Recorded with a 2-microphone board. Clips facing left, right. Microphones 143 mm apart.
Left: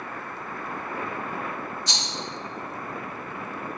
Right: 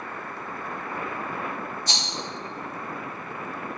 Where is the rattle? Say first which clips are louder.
Right 1 dB; 45° right (ahead or behind), 1.6 m.